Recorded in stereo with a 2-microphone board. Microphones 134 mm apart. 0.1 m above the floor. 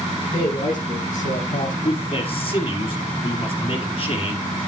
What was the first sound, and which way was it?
A man speaking, 80° left.